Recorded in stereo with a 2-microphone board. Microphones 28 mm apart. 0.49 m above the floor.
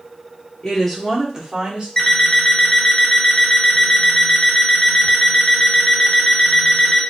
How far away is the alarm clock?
About 0.7 m.